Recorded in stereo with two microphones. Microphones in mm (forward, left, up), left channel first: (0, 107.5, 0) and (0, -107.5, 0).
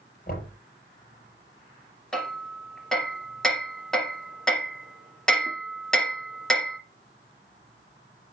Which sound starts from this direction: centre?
Hammering, at 2.1 s.